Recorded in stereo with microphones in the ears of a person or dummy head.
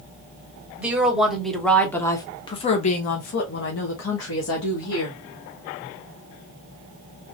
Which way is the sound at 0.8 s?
10° right (ahead or behind).